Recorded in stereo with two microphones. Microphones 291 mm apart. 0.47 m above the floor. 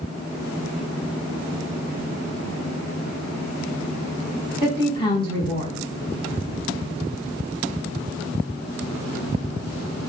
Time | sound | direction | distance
4.6 | a woman speaking | 15° left (ahead or behind) | 4 m